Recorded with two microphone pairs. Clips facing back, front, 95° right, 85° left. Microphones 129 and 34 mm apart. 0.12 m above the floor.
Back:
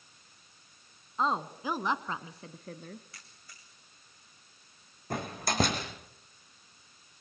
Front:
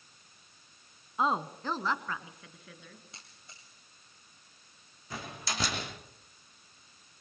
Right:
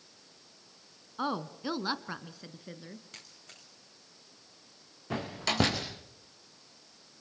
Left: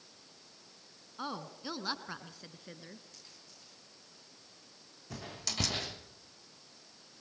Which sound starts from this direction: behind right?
A door slam, at 5.1 s.